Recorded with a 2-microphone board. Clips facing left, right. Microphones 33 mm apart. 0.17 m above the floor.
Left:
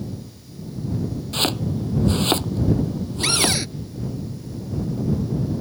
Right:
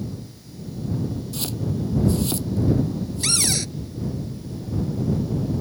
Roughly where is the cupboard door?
Left.